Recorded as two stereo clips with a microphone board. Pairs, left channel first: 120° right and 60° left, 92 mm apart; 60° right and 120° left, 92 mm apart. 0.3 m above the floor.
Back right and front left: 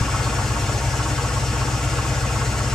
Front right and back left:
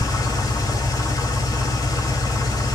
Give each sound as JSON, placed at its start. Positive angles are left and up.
{"t": 0.0, "sound": "an engine running", "azimuth_deg": -40, "distance_m": 1.1}